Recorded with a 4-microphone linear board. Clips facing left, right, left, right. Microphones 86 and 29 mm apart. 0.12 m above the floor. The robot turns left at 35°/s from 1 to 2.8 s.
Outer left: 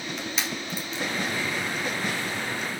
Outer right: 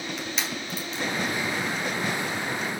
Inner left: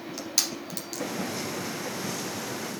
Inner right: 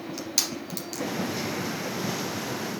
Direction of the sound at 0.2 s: Centre (ahead or behind).